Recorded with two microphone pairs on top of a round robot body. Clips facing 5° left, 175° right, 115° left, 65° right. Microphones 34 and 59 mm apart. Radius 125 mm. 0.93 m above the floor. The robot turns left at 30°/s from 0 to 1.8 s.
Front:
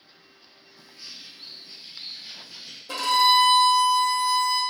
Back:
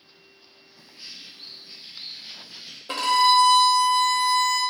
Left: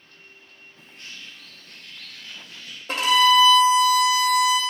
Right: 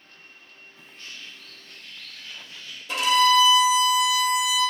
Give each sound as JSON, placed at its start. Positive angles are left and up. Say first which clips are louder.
{"t": 0.8, "sound": "a bird", "louder": "back 1 dB, even", "azimuth_deg": 150, "distance_m": 1.4}
{"t": 2.9, "sound": "a violin", "louder": "back 1 dB, left 2 dB", "azimuth_deg": 140, "distance_m": 0.9}